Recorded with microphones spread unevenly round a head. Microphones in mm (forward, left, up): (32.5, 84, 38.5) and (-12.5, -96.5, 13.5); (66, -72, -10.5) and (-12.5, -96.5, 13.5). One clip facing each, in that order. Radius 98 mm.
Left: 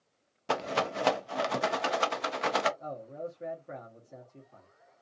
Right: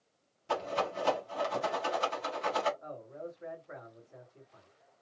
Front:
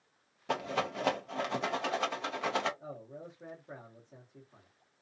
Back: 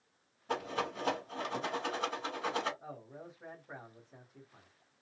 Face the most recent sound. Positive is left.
turn(degrees=70)